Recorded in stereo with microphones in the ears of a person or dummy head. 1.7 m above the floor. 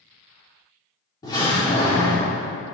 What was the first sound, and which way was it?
A door slam, 25° left (ahead or behind).